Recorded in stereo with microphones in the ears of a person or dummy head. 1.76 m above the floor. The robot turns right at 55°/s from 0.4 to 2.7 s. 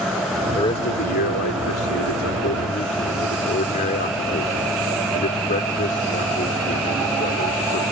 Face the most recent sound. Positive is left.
turn(degrees=140)